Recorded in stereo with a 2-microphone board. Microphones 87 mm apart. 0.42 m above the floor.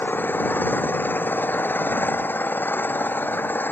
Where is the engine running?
20° left (ahead or behind).